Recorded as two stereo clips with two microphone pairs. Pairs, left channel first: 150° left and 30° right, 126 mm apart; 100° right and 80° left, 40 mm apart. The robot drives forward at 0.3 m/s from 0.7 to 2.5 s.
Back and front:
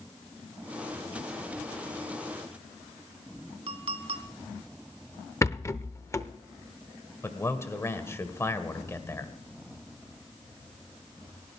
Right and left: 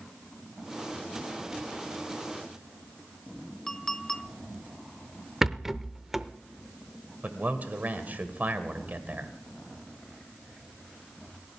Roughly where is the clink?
Ahead.